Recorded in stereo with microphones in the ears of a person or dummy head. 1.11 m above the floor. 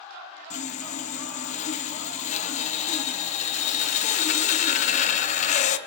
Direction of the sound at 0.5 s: 45° left (ahead or behind).